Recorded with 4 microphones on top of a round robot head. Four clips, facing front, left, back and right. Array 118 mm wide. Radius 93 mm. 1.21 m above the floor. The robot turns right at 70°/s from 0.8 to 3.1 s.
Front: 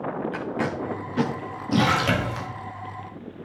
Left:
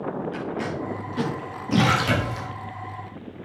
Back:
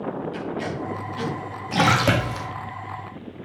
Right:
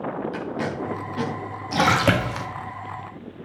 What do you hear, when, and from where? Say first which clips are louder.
0.3 s tape being pulled: right 1 dB, front 1 dB; 20° right, 2.5 m; by 1.9 s 60° left, 2.5 m
1.7 s a splash: right 2 dB, back 2 dB; 145° right, 1.9 m; by 2.5 s 90° right, 1.9 m